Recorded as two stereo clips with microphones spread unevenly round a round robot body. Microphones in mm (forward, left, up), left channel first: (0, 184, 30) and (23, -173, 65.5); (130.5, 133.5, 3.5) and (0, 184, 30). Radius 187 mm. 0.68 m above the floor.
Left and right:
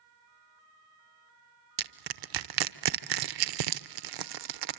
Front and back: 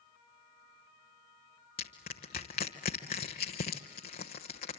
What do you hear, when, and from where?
1.8 s crushing: 60° right, 0.8 m